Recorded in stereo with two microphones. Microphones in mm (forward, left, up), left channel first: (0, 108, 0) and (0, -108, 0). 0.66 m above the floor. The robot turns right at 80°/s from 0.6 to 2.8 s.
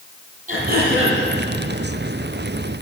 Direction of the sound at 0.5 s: 140° right.